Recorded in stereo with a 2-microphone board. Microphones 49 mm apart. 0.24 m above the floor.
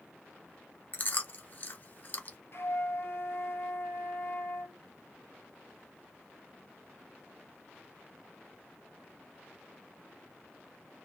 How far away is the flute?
About 0.9 m.